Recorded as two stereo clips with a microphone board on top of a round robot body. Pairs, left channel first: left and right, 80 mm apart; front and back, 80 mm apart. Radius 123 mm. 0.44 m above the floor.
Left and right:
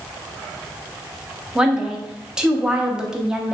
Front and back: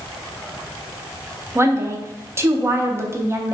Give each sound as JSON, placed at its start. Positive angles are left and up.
{"t": 1.6, "sound": "a woman speaking", "azimuth_deg": -165, "distance_m": 1.0}